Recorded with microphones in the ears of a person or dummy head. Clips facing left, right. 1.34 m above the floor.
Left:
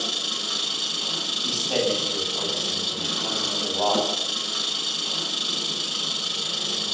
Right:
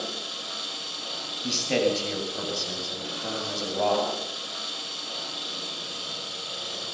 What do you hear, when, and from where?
0.0 s an engine running: 60° left (ahead or behind), 9.5 m
1.4 s a man speaking: 30° right (ahead or behind), 8 m